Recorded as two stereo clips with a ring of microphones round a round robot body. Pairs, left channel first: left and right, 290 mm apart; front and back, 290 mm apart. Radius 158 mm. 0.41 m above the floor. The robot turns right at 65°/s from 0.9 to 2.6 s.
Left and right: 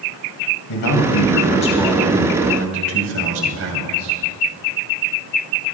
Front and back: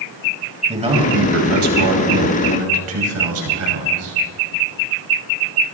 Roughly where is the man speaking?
Left.